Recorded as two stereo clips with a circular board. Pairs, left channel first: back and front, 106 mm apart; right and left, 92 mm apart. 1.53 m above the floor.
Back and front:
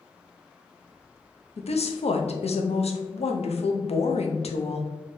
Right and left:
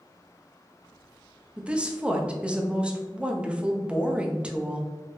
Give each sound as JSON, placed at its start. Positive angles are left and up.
{"t": 1.6, "sound": "a woman speaking", "azimuth_deg": 170, "distance_m": 0.6}